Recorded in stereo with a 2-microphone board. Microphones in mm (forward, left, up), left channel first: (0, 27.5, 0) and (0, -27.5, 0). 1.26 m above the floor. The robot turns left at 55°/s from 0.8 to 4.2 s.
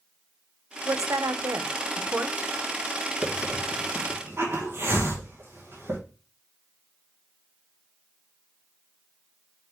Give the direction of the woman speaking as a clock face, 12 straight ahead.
2 o'clock.